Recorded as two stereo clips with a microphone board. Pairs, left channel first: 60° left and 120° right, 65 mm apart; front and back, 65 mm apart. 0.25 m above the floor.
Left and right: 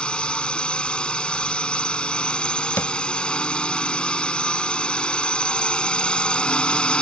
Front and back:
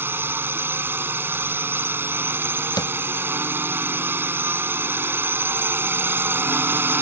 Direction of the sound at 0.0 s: 130° left.